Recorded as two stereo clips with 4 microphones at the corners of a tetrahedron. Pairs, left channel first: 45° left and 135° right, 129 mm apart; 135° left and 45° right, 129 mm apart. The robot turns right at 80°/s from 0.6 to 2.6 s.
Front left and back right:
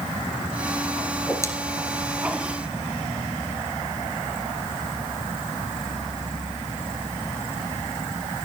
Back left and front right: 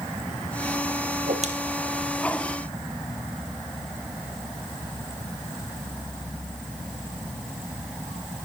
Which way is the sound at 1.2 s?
45° right.